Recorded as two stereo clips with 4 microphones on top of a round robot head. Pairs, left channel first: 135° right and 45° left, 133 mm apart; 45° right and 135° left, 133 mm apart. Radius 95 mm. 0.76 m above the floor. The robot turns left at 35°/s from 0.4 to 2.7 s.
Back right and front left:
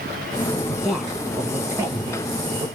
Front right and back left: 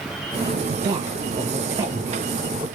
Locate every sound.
0.7 s a woman speaking: 140° left, 1.1 m; by 2.6 s 70° left, 1.1 m